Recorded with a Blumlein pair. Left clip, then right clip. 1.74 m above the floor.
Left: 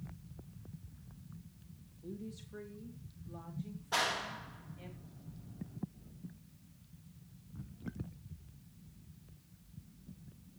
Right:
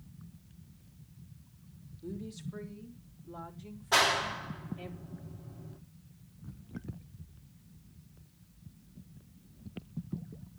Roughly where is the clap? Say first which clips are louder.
Right 8 dB; ahead right.